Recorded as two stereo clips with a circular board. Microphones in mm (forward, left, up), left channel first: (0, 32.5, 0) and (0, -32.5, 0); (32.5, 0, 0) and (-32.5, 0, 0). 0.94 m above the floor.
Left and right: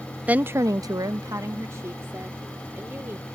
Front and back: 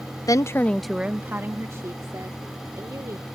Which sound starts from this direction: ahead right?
A woman speaking, at 0.3 s.